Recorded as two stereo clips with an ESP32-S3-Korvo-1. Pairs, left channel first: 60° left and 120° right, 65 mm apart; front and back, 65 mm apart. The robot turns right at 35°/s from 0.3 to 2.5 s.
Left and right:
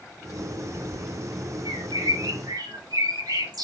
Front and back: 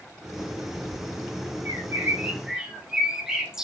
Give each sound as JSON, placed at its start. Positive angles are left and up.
{"t": 1.6, "sound": "a bird", "azimuth_deg": -130, "distance_m": 1.7}